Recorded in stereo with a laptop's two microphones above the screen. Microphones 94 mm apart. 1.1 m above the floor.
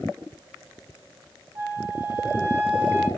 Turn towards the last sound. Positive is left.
turn(degrees=-40)  # may be behind; listen again after turning